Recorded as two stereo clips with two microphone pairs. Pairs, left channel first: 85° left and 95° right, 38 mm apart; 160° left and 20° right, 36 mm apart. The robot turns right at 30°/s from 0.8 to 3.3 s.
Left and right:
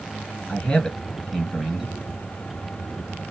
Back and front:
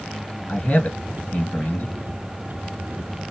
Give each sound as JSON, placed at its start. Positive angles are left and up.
{"t": 0.5, "sound": "a man speaking", "azimuth_deg": 145, "distance_m": 2.5}